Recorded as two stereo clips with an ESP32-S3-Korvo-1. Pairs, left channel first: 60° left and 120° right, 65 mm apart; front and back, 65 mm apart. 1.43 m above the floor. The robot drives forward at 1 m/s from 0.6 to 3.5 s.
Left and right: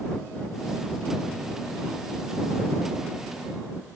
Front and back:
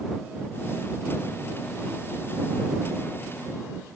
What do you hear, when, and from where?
Only background noise.